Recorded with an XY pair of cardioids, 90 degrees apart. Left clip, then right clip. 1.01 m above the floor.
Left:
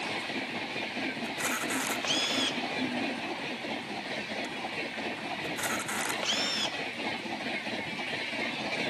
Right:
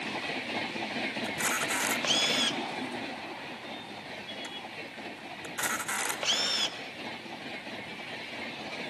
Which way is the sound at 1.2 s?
25° right.